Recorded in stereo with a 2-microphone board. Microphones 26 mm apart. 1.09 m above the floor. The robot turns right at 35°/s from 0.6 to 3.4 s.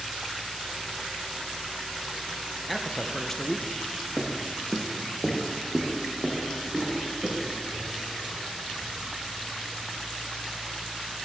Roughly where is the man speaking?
Centre.